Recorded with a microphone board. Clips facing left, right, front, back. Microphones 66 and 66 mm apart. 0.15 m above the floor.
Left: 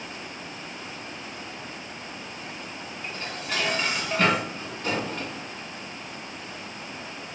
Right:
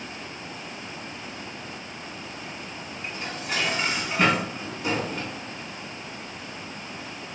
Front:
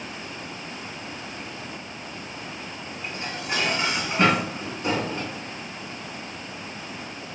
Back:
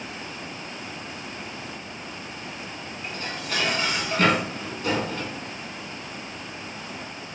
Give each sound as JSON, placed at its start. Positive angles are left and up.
{"t": 3.0, "sound": "dishes clattering", "azimuth_deg": -25, "distance_m": 1.0}